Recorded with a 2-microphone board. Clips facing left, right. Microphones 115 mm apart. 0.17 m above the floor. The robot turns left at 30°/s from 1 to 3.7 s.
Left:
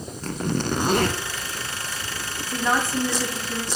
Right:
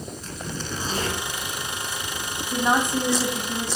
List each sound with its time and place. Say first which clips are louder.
0.2 s a zipper: left 12 dB; 60° left (ahead or behind), 0.6 m
2.5 s a woman speaking: right 1 dB; 15° right (ahead or behind), 1.0 m; by 3.7 s 20° right (ahead or behind), 1.0 m